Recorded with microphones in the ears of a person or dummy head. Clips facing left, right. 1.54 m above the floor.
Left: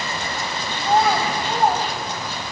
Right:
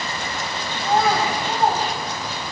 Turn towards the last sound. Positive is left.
turn(degrees=20)  # may be behind; listen again after turning